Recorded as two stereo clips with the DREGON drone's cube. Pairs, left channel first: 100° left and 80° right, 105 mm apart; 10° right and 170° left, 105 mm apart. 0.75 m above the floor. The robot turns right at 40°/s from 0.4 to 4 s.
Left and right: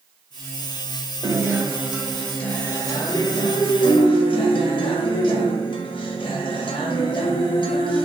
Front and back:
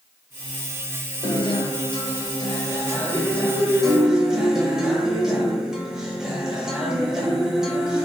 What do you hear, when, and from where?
1.2 s a guitar: 25° right, 0.6 m; by 8.1 s 85° left, 0.6 m